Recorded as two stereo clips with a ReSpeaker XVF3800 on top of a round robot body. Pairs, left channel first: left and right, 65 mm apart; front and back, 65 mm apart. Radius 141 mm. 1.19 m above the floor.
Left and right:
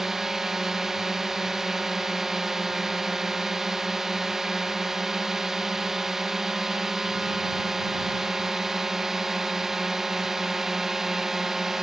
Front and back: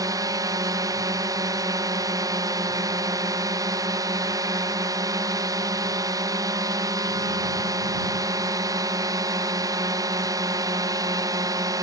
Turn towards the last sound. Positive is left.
turn(degrees=-175)